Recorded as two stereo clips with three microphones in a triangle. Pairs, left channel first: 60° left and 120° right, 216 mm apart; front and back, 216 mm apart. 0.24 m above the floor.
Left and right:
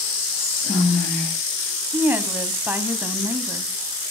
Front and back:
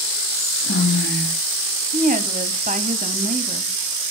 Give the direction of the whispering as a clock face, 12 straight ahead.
1 o'clock.